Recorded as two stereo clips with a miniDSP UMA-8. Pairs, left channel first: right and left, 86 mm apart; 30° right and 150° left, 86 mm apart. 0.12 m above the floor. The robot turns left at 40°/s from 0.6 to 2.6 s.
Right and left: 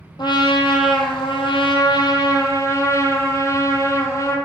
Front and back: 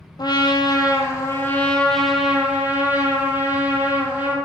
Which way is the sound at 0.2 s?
60° right.